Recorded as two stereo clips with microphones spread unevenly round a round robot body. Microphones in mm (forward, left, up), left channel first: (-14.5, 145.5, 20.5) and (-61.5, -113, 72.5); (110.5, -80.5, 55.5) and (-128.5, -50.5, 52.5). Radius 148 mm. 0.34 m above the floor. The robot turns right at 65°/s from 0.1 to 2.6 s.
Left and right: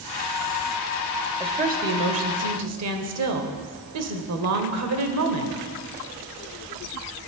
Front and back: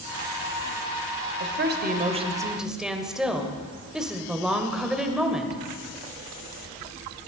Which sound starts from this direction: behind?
A woman speaking, at 1.4 s.